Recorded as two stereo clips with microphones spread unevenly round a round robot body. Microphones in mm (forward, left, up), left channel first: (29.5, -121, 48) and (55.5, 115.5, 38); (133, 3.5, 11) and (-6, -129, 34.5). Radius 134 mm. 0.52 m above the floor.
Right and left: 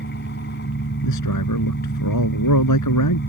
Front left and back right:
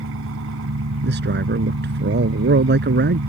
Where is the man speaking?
110° right.